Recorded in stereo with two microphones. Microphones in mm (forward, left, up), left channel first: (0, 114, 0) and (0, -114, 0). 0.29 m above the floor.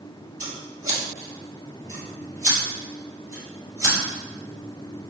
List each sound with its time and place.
0.4 s scissors: 70° right (ahead or behind), 2.0 m